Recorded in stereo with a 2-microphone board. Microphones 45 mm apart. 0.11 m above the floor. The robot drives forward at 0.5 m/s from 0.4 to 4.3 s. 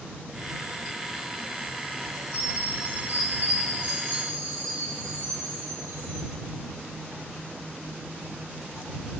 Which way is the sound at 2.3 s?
80° right.